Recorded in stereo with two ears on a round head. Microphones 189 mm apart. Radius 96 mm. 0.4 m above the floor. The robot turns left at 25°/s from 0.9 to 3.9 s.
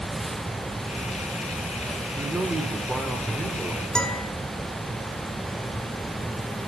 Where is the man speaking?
10° right (ahead or behind), 0.9 m; by 4.2 s 5° left (ahead or behind), 0.9 m.